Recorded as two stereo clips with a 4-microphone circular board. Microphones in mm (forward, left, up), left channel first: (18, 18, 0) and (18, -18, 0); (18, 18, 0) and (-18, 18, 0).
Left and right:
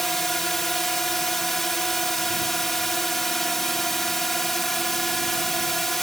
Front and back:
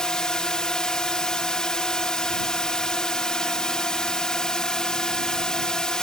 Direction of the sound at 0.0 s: 15° left.